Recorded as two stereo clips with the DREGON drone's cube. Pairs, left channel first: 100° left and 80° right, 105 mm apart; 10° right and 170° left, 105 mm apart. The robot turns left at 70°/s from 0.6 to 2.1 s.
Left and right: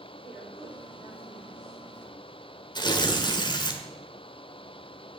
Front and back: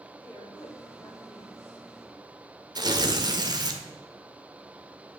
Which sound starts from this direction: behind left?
Tearing paper, at 2.8 s.